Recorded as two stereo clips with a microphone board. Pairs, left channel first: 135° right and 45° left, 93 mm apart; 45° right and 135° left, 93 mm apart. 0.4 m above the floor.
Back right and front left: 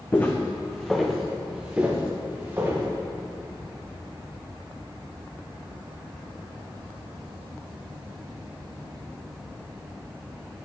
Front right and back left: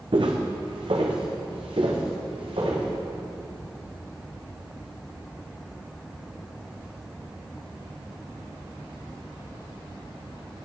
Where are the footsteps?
160° left, 1.2 m; by 2.9 s 110° left, 2.5 m.